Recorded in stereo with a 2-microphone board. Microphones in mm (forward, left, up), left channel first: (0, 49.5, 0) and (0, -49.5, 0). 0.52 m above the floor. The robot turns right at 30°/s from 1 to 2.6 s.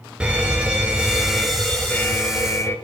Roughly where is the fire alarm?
Ahead.